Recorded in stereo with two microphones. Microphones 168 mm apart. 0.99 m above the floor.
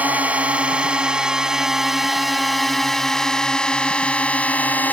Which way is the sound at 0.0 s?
10° right (ahead or behind).